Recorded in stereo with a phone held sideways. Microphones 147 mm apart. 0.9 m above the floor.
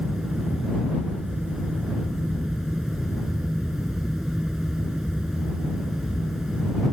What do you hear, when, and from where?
0.0 s a fan: 5° right (ahead or behind)